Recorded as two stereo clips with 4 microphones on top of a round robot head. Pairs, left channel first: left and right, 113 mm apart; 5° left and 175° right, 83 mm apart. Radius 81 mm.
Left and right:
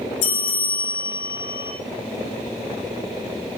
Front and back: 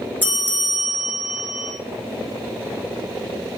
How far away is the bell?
About 1.3 m.